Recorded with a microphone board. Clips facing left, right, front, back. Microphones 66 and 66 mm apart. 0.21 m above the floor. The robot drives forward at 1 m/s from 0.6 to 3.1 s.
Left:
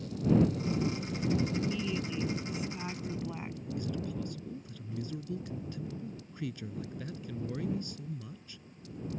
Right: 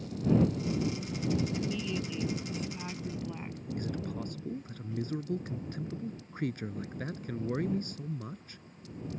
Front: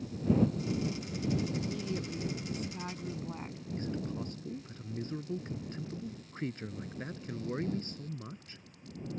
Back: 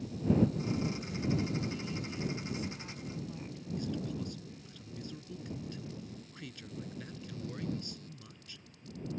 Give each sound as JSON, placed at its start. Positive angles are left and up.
{"t": 1.5, "sound": "a woman speaking", "azimuth_deg": 10}
{"t": 3.8, "sound": "a man speaking", "azimuth_deg": -50}